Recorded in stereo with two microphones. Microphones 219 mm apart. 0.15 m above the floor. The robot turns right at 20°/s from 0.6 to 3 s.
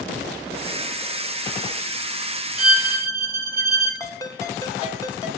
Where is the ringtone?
15° left (ahead or behind), 1.1 m.